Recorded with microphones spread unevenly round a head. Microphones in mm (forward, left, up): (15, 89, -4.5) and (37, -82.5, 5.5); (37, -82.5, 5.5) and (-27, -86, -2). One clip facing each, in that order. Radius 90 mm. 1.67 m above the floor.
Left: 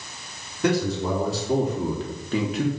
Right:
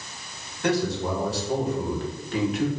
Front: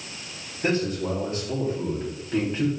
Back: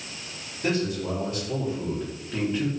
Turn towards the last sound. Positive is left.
turn(degrees=85)